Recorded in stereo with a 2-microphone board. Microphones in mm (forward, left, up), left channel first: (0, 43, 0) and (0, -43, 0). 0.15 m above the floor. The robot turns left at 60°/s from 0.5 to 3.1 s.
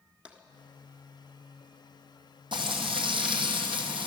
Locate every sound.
0.2 s tapping: 15° right (ahead or behind), 1.3 m
2.5 s frying: 65° right, 2 m; by 4.1 s 105° right, 2 m